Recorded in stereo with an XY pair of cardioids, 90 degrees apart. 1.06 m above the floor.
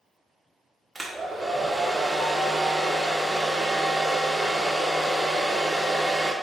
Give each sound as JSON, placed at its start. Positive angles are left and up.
{"t": 0.9, "sound": "a hair dryer", "azimuth_deg": -20, "distance_m": 0.6}